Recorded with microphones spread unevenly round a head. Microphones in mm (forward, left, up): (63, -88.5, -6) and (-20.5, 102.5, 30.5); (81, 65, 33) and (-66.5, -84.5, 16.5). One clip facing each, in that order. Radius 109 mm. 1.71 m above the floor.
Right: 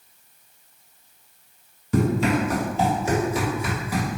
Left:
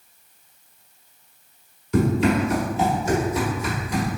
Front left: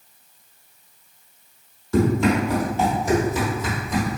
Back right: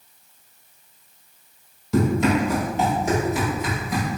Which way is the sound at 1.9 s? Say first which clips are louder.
Left 2 dB, front left 1 dB; 75° right.